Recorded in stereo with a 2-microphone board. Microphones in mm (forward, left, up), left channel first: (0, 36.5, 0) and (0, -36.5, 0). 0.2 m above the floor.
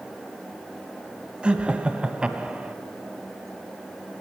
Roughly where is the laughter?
Centre.